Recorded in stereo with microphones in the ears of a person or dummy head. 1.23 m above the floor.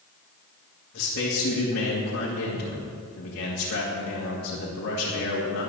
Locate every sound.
0.9 s a man speaking: 60° left (ahead or behind), 2.5 m